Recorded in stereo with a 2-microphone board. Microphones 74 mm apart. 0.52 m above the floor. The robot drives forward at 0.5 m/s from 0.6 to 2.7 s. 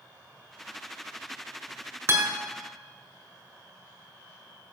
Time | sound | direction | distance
2.1 | a guitar | 30° right (ahead or behind) | 1.8 m